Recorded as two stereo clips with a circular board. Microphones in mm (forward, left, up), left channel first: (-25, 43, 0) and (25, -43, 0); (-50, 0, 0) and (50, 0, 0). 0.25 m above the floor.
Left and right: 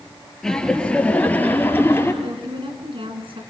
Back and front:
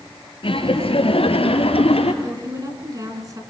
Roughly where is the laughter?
Behind right.